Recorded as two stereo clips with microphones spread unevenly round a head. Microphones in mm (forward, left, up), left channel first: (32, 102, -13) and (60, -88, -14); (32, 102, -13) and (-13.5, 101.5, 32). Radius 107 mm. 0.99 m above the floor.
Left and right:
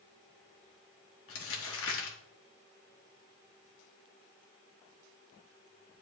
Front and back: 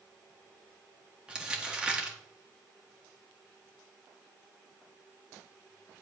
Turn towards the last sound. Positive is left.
turn(degrees=95)